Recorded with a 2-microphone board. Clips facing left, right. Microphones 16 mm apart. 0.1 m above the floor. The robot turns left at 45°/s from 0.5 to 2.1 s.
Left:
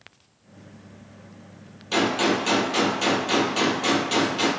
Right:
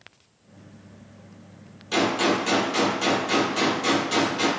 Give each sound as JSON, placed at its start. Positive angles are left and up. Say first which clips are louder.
{"t": 1.9, "sound": "a gunshot", "louder": "even", "side_deg": 15, "distance_m": 0.8}